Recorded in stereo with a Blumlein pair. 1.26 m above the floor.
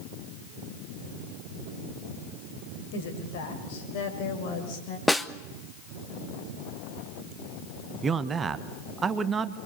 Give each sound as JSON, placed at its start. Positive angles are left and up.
{"t": 2.9, "sound": "a woman speaking", "azimuth_deg": 55, "distance_m": 6.5}
{"t": 5.1, "sound": "a snare drum", "azimuth_deg": 5, "distance_m": 1.0}
{"t": 8.0, "sound": "a man speaking", "azimuth_deg": -20, "distance_m": 1.4}